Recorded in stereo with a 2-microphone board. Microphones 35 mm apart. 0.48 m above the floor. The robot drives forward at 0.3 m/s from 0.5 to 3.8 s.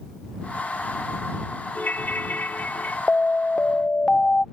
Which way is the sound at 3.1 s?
25° left (ahead or behind).